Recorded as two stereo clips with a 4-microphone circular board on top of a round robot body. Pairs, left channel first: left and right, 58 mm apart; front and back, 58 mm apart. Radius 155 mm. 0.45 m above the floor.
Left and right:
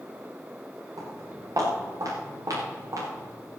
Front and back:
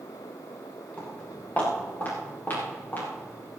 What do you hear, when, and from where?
1.0 s footsteps: 65° right, 7.5 m; by 3.3 s 55° right, 8.5 m